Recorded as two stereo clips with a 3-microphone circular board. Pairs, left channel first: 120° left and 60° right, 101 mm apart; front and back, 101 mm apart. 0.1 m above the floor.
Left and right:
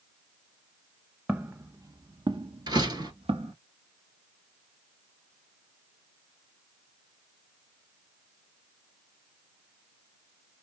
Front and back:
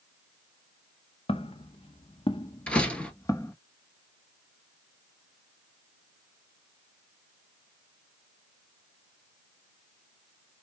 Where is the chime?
I don't hear a chime.